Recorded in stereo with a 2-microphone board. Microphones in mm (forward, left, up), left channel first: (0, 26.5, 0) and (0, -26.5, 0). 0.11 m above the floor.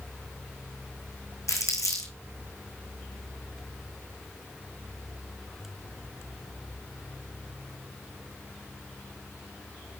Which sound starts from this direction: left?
Crumpling, at 1.5 s.